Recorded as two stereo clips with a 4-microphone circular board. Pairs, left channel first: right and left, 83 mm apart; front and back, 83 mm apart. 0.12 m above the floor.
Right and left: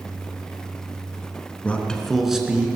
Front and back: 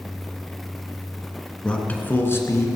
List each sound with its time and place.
1.6 s a man speaking: 60° right, 1.8 m; by 2.7 s 20° left, 2 m